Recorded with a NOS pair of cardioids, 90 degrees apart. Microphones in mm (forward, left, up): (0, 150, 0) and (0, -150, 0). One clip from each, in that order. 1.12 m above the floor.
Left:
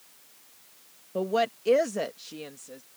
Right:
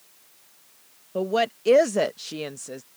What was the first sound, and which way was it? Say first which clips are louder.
A woman speaking: right 3 dB; 10° right.